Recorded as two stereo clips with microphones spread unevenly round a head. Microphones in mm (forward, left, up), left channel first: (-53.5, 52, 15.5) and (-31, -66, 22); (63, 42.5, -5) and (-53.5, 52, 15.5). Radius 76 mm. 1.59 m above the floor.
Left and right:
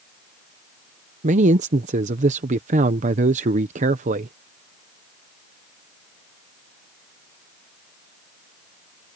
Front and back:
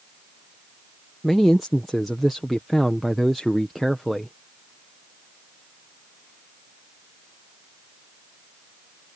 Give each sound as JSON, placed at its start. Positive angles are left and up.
{"t": 1.2, "sound": "a man speaking", "azimuth_deg": -95}